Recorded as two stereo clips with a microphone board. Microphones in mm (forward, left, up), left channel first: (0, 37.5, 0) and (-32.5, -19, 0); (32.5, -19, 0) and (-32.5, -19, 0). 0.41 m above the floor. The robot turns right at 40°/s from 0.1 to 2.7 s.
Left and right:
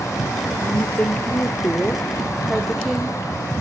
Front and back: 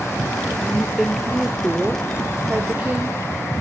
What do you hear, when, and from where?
0.6 s a woman speaking: 70° left, 0.9 m; by 3.6 s 155° left, 0.9 m